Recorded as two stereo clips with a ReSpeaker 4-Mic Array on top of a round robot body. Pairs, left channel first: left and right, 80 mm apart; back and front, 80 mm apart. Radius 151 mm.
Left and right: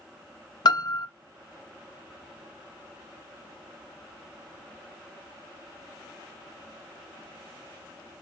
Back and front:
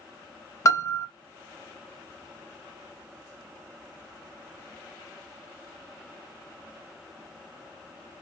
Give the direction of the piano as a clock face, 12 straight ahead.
8 o'clock.